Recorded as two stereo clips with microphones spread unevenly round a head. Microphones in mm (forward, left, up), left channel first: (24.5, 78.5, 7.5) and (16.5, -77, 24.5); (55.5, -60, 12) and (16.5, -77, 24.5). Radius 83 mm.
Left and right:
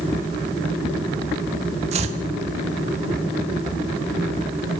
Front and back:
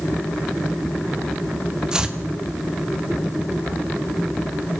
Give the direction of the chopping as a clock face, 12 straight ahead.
4 o'clock.